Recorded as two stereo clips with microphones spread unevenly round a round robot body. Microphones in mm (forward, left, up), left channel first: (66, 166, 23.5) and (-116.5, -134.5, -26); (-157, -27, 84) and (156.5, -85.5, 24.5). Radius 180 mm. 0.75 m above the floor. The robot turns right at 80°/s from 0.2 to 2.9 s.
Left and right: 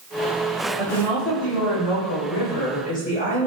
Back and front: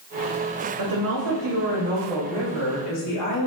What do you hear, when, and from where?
0.8 s a woman speaking: 40° right, 3.5 m; by 3.5 s 130° left, 3.5 m